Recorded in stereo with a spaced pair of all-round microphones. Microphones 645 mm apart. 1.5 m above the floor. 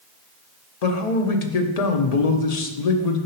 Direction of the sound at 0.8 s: 85° left.